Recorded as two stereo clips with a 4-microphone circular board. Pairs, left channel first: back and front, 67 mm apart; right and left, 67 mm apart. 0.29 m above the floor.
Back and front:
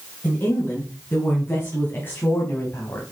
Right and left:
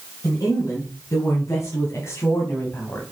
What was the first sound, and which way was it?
A woman speaking, 120° right.